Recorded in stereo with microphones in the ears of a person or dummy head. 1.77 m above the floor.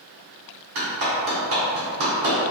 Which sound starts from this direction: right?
A clap, at 0.8 s.